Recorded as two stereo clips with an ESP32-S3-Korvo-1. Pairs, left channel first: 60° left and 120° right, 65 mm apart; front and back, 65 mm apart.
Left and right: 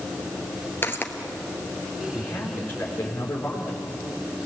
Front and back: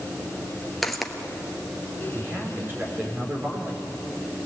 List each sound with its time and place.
0.8 s footsteps: 85° left, 1.8 m
2.1 s a man speaking: 120° left, 4.5 m